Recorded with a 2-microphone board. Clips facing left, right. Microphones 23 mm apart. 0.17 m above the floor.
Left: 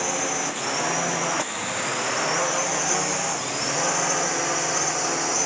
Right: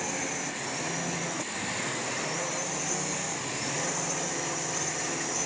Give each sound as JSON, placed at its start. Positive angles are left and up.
{"t": 0.0, "sound": "a drone", "side_deg": 55}